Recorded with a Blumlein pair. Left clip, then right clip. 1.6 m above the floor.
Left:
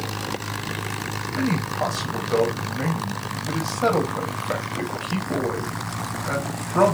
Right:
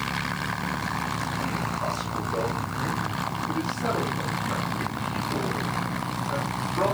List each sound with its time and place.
1.4 s a man speaking: 35° left, 3 m